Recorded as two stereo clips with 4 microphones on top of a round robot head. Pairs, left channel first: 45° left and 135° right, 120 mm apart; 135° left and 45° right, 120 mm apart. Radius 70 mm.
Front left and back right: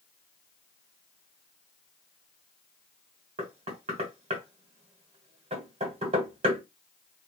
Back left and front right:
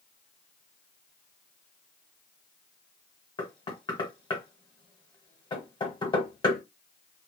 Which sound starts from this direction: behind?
Knocking, at 3.4 s.